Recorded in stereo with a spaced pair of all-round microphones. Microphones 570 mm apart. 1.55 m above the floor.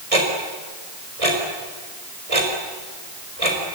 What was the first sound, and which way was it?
Ticking, 75° right (ahead or behind).